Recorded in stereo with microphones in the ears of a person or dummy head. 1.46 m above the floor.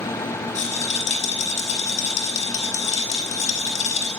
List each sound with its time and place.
0.6 s a rattle: 35° left (ahead or behind), 5 m